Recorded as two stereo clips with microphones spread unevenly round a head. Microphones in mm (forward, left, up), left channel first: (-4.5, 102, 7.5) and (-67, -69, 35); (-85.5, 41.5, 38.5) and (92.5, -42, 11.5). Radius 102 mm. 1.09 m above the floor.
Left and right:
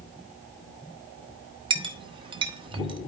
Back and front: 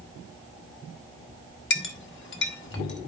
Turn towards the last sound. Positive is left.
turn(degrees=-170)